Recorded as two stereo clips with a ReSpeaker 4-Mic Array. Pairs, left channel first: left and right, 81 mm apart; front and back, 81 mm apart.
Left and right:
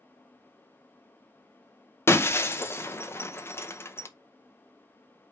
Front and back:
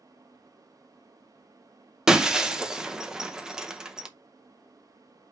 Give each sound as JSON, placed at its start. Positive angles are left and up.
{"t": 2.1, "sound": "breaking glass", "azimuth_deg": 105, "distance_m": 0.7}